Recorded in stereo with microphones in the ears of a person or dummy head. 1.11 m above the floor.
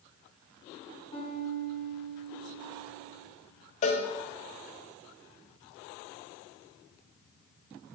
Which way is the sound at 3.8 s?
30° left (ahead or behind).